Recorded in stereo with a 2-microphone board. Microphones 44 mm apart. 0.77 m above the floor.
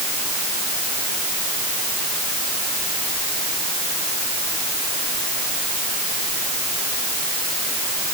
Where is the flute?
No flute in this recording.